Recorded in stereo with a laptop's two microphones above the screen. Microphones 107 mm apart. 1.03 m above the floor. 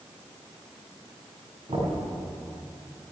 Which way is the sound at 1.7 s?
65° right (ahead or behind).